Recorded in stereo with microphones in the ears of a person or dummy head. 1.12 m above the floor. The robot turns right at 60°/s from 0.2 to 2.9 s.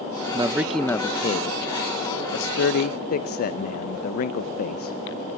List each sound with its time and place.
0.3 s a man speaking: 15° right, 0.5 m; by 5.0 s 140° left, 0.5 m